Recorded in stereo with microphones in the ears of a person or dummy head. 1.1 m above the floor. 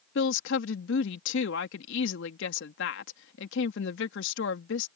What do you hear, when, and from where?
0.1 s a woman speaking: 65° left (ahead or behind)